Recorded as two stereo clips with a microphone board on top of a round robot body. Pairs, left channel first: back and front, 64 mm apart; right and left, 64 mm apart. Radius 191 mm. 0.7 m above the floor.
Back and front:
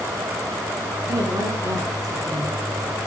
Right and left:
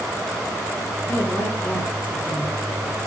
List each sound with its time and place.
1.1 s a woman speaking: 30° right, 9 m